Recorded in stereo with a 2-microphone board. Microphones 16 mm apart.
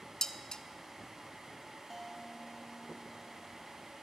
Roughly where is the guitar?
Centre.